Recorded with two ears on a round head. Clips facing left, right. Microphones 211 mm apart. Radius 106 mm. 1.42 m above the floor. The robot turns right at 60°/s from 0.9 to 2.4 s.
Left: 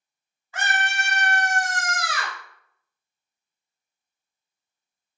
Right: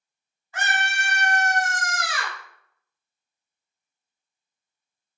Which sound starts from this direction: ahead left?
A scream, at 0.5 s.